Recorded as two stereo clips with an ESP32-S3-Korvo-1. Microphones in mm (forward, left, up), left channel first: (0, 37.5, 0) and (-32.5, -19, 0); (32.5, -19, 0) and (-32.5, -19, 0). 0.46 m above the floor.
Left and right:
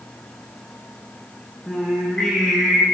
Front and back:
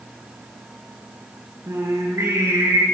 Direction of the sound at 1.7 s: 140° left.